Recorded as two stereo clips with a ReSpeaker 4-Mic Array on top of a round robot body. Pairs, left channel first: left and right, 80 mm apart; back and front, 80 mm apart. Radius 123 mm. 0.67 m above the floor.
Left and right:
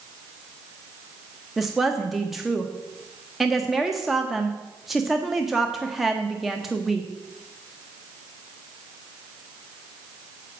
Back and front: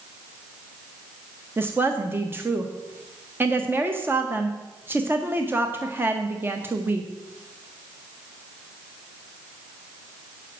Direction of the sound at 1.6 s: 5° right.